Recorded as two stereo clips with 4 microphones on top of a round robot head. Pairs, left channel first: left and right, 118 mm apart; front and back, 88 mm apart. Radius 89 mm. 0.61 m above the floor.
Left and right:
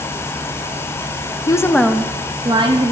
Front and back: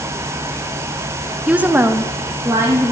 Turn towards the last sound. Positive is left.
turn(degrees=-120)